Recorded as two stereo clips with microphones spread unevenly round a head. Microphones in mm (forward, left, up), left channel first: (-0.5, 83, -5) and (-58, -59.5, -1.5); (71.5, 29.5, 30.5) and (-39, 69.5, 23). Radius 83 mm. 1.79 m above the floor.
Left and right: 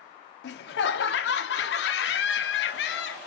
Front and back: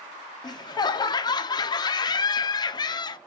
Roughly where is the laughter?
Ahead left.